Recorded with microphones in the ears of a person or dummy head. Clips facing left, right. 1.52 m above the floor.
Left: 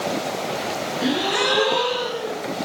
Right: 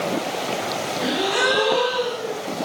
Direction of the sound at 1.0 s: 80° left.